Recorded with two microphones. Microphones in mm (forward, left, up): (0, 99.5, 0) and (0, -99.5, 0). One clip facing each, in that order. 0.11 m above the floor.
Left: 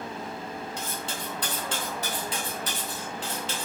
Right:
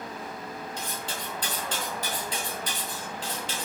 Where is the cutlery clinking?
40° right (ahead or behind), 1.9 m.